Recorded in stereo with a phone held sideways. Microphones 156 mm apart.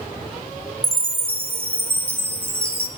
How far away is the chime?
About 1.2 m.